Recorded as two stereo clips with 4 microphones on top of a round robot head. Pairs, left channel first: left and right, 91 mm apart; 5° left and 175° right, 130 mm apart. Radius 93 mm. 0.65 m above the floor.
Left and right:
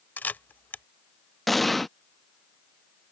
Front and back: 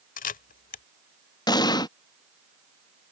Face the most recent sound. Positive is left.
turn(degrees=0)